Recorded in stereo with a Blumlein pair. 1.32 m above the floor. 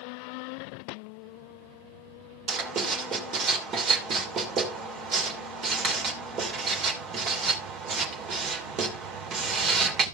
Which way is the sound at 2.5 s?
30° right.